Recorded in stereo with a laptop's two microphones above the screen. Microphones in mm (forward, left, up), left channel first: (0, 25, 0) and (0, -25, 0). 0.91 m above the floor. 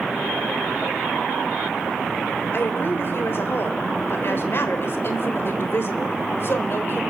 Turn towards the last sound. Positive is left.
turn(degrees=50)  # may be behind; listen again after turning